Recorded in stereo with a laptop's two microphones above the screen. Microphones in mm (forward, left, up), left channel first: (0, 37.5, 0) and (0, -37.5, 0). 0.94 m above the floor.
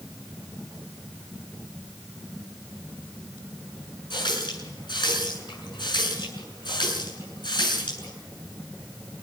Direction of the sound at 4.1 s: 90° left.